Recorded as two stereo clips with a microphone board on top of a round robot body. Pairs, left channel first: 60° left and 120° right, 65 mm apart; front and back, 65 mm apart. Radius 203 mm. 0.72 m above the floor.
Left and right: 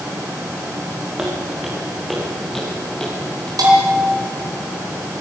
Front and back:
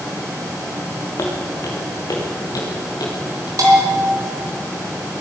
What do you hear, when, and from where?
1.2 s footsteps: 40° right, 4 m; by 3.5 s 20° right, 5.5 m
3.6 s a bell: 145° right, 4 m